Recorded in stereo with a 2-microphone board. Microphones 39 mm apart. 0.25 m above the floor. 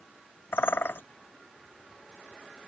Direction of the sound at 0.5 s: 75° left (ahead or behind).